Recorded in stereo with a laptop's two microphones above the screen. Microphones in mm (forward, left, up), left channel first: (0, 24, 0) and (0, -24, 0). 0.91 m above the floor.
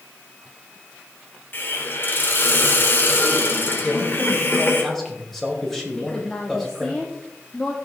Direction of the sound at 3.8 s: 10° left (ahead or behind).